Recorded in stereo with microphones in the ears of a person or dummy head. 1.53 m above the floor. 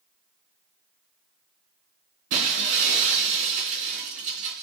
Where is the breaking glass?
40° right (ahead or behind), 3.5 m.